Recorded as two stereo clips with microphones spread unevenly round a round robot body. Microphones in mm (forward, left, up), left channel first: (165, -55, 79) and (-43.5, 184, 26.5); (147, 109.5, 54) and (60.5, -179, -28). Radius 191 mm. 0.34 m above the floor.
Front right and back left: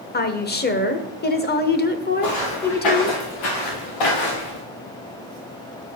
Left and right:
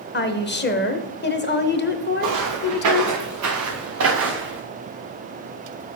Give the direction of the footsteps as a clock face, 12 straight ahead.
3 o'clock.